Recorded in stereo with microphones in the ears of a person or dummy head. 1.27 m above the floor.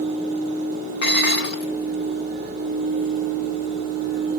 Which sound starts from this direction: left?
Dishes clattering, at 1.0 s.